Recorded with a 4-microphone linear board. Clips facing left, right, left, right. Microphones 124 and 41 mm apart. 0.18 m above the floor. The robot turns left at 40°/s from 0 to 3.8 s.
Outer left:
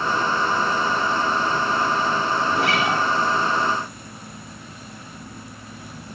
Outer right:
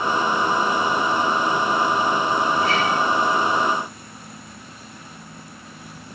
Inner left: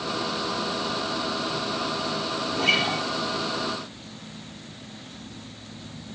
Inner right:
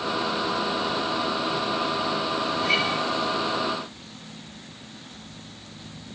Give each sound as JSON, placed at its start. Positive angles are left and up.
{"t": 2.5, "sound": "a guitar", "side_deg": 75, "distance_m": 4.5}